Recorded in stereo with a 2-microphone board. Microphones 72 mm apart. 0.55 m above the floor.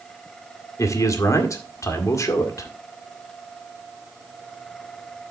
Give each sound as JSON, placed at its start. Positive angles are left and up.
{"t": 0.8, "sound": "a man speaking", "side_deg": 50, "distance_m": 1.7}